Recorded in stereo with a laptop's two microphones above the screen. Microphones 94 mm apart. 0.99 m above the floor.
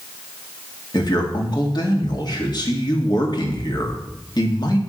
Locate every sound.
0.9 s a man speaking: 45° left (ahead or behind), 2 m